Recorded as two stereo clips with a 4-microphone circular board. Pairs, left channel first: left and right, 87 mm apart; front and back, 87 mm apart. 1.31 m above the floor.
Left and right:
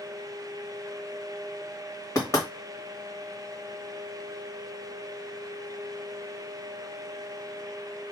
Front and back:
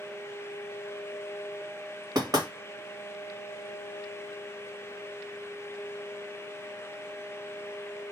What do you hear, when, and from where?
2.1 s knocking: 135° left, 1.3 m